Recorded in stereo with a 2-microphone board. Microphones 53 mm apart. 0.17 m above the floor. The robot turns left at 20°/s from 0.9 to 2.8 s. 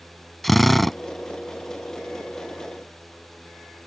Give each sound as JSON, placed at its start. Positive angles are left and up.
{"t": 0.4, "sound": "a drill", "side_deg": 5}